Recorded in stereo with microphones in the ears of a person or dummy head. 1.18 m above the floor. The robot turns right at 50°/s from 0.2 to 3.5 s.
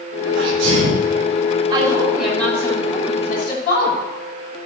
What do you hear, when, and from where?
0.3 s a sneeze: 130° right, 5 m; by 1.1 s 90° right, 5 m
1.7 s a woman speaking: 30° right, 6.5 m; by 4.0 s 60° left, 6.5 m